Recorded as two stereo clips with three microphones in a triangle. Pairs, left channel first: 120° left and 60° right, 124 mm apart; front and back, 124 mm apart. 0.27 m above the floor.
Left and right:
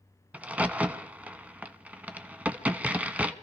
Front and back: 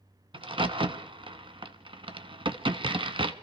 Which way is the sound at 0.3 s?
140° right.